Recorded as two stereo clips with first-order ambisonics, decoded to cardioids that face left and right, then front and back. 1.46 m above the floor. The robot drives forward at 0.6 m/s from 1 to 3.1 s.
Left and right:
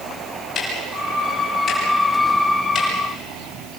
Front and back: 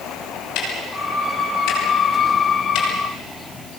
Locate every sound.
0.6 s ticking: 25° left, 9.5 m; by 2.9 s 30° left, 8.5 m